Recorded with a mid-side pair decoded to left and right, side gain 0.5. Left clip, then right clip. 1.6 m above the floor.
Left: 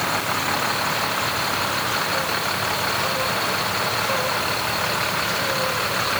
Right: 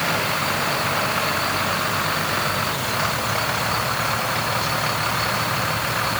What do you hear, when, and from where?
Only background noise.